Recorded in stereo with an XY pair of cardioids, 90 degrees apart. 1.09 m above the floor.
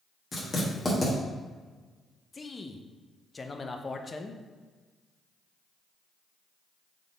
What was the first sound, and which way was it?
Writing, 30° left.